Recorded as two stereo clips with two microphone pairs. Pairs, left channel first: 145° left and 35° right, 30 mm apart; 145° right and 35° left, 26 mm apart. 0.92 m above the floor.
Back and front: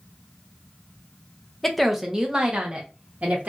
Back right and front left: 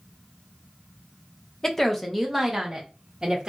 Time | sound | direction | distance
1.6 | a woman speaking | 140° right | 0.6 m